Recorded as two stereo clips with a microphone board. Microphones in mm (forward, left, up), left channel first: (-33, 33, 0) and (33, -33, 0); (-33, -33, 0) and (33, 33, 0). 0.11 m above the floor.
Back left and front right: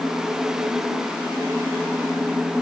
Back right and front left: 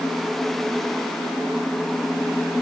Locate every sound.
Only background noise.